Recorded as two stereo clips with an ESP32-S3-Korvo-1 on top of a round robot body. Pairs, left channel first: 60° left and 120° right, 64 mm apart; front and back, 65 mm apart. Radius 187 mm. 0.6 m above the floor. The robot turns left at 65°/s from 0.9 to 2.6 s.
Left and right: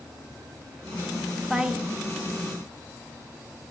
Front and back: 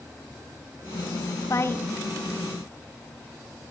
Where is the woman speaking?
35° right, 1.4 m; by 1.9 s 60° right, 1.4 m.